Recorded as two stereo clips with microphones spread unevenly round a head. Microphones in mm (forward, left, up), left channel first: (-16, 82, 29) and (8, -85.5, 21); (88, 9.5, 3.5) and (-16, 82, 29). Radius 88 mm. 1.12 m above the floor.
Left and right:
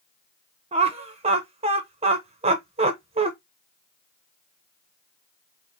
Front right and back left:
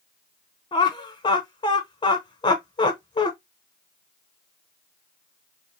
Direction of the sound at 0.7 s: 50° right.